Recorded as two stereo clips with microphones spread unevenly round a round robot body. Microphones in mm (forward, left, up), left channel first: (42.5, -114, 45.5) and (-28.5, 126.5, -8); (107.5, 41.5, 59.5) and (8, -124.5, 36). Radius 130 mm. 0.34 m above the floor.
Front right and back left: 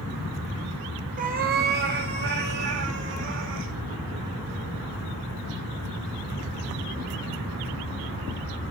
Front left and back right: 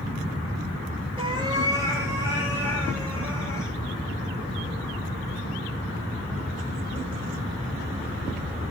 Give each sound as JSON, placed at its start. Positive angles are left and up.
{"t": 1.2, "sound": "a cat meowing", "azimuth_deg": 170, "distance_m": 2.5}